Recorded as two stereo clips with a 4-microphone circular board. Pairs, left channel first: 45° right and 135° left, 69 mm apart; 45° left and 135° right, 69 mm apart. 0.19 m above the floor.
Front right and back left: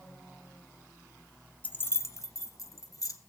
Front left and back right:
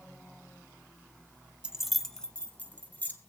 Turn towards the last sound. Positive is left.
turn(degrees=-15)